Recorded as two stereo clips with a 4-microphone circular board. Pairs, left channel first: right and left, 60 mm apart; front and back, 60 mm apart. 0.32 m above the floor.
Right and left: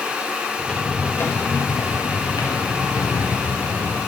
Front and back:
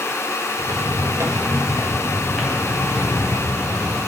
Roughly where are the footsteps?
Behind.